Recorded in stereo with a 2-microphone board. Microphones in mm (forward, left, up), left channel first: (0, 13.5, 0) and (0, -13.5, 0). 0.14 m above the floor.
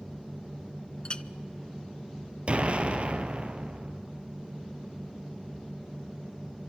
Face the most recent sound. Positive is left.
turn(degrees=-45)  # may be behind; listen again after turning